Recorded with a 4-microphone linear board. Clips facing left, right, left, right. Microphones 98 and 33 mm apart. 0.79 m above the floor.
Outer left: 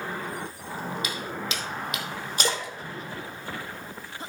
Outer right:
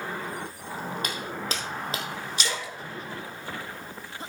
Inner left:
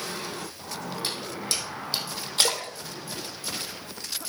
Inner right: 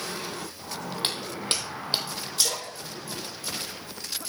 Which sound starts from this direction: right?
Footsteps, at 1.0 s.